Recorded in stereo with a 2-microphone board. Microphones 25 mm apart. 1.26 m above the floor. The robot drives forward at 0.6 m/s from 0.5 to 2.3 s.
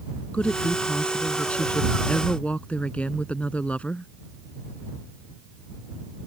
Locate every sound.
0.3 s a woman speaking: 55° left (ahead or behind); by 4.1 s 60° left (ahead or behind)